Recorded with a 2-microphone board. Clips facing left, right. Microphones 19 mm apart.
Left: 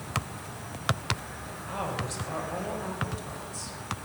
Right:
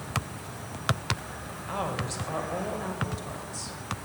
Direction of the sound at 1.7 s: 10° right (ahead or behind).